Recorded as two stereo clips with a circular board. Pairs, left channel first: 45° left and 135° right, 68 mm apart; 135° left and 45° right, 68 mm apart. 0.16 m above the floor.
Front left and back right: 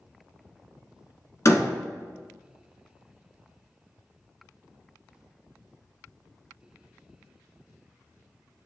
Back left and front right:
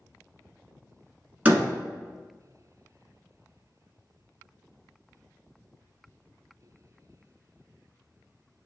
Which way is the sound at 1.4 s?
15° left.